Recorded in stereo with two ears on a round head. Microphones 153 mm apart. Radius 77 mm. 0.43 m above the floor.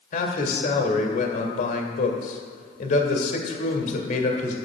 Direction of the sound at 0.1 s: 50° left (ahead or behind).